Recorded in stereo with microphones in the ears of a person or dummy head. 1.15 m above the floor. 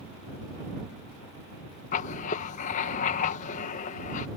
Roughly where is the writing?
Left.